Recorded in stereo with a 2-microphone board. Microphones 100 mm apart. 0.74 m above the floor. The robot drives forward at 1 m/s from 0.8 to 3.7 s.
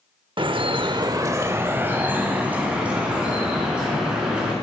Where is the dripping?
55° right (ahead or behind), 0.6 m; by 4.5 s 10° right (ahead or behind), 3 m.